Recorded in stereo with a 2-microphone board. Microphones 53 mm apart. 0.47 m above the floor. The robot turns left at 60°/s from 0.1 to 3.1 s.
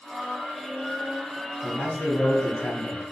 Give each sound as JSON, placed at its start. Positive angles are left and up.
{"t": 1.6, "sound": "a man speaking", "azimuth_deg": 120, "distance_m": 1.5}